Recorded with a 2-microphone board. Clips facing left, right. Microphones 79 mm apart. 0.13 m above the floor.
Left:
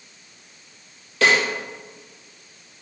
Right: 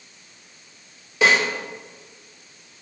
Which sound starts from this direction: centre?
A snare drum, at 1.2 s.